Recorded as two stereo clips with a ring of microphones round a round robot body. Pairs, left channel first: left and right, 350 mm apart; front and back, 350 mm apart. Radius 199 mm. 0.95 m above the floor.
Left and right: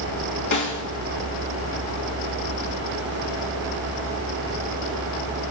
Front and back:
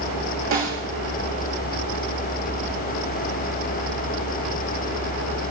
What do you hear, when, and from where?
0.5 s a snare drum: 125° left, 2 m